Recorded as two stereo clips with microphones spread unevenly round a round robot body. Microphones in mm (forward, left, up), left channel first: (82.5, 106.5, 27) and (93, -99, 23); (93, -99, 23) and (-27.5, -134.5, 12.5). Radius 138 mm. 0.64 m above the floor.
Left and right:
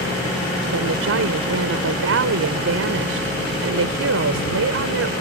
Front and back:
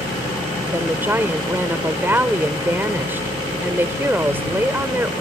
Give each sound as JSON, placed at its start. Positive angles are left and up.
{"t": 0.7, "sound": "a woman speaking", "azimuth_deg": -90}